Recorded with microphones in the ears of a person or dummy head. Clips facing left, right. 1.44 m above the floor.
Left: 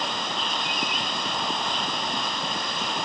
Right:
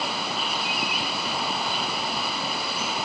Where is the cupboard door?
No cupboard door in this recording.